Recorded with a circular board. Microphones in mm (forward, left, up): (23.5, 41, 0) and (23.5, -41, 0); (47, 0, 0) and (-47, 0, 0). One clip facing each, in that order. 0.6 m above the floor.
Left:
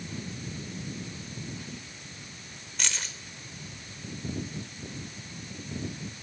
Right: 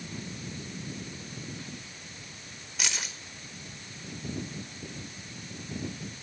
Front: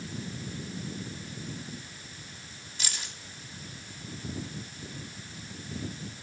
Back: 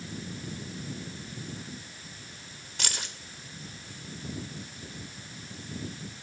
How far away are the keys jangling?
About 1.3 m.